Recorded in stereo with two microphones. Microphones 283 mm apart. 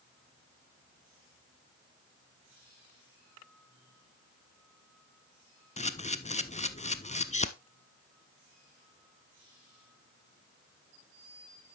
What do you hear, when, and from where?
5.8 s a camera shutter: 25° left (ahead or behind), 0.5 m